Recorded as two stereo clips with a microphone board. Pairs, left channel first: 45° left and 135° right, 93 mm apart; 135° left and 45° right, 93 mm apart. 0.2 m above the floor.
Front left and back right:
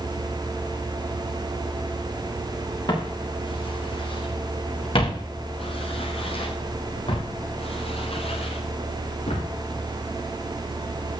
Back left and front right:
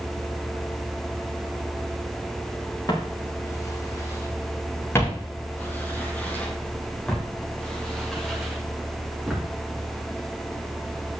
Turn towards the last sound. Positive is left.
turn(degrees=40)